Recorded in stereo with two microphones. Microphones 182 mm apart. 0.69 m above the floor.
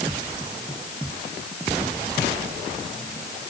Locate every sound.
Only background noise.